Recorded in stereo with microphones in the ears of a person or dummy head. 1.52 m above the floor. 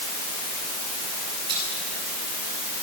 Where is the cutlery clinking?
20° right (ahead or behind), 8 m.